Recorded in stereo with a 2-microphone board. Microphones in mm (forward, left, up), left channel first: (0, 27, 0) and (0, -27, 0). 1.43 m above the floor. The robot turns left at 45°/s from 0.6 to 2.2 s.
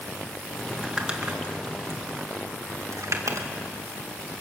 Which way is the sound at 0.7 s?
5° right (ahead or behind).